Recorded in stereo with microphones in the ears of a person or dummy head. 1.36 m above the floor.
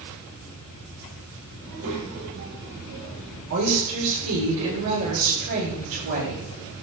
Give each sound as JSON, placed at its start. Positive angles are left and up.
{"t": 1.6, "sound": "a child speaking", "side_deg": -65, "distance_m": 5.0}
{"t": 3.5, "sound": "a woman speaking", "side_deg": -75, "distance_m": 5.5}